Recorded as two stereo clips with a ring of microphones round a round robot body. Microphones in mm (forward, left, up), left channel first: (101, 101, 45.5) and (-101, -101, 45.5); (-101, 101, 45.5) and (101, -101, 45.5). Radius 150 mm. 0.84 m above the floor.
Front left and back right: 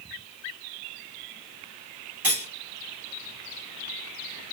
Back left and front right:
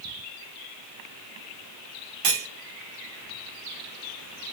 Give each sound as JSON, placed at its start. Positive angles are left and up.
{"t": 2.2, "sound": "cutlery clinking", "azimuth_deg": -50, "distance_m": 1.4}